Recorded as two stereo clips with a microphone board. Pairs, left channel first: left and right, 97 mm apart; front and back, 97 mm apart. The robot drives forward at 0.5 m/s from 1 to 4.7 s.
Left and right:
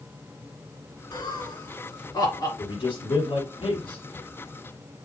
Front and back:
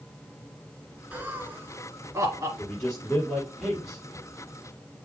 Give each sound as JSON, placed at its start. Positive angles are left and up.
{"t": 1.1, "sound": "laughter", "azimuth_deg": 110, "distance_m": 2.0}
{"t": 2.6, "sound": "a man speaking", "azimuth_deg": 80, "distance_m": 4.0}